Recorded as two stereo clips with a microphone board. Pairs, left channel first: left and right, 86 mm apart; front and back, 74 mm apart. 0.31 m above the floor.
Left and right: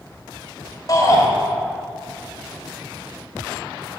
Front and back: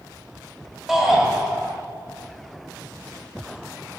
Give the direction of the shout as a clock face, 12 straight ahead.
9 o'clock.